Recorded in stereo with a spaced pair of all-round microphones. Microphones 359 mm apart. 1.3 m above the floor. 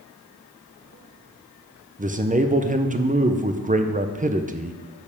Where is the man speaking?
20° right (ahead or behind), 0.7 m.